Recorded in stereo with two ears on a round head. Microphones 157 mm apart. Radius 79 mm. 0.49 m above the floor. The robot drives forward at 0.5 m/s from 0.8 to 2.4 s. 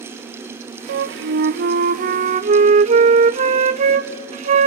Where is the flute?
70° right (ahead or behind), 0.7 m; by 4.7 s 40° right (ahead or behind), 1.0 m.